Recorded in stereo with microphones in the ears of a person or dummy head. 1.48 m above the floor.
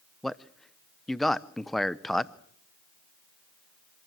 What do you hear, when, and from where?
0.2 s a man speaking: centre (ahead or behind), 0.6 m